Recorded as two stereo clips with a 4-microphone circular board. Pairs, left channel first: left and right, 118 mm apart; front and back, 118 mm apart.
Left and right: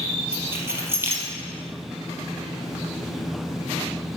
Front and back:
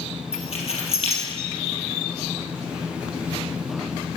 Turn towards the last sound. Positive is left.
turn(degrees=-20)